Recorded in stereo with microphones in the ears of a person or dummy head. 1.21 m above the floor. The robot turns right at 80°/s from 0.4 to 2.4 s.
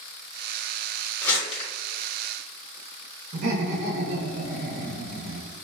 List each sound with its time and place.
1.2 s crumpling: 10° left (ahead or behind), 1.3 m; by 1.7 s 45° left (ahead or behind), 1.3 m
3.3 s laughter: 45° right (ahead or behind), 1.1 m